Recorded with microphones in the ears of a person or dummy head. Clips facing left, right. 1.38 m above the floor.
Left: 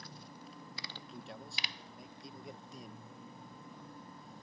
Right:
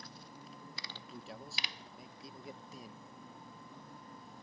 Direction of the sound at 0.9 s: Centre (ahead or behind).